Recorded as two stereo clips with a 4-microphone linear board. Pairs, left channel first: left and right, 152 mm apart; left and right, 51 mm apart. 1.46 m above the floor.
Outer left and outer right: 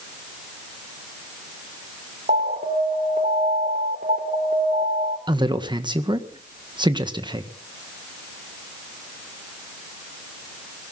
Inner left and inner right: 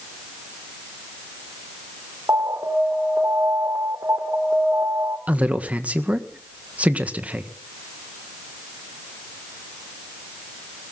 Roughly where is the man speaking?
Right.